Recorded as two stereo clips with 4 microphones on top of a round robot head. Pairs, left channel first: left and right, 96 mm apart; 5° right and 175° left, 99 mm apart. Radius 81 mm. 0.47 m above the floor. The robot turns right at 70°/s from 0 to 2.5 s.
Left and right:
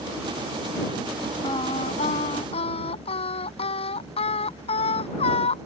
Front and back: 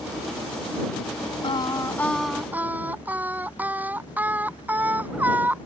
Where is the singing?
30° left; by 5.7 s 100° left.